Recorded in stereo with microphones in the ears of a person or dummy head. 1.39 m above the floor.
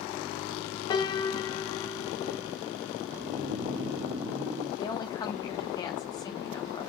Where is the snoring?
25° right (ahead or behind), 1.5 m.